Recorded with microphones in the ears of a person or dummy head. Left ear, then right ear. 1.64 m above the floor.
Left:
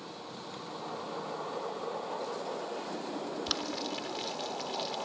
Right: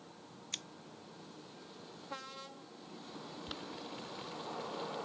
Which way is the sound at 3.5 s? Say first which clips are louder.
Left 11 dB; 50° left (ahead or behind).